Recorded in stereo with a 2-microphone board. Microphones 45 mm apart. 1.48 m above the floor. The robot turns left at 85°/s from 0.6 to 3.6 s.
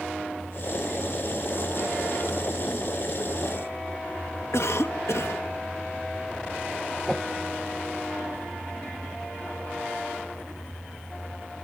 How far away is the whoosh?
About 1.3 m.